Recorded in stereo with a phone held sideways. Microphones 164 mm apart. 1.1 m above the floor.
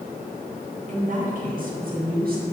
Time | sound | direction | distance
0.9 | a woman speaking | 50° right (ahead or behind) | 2 m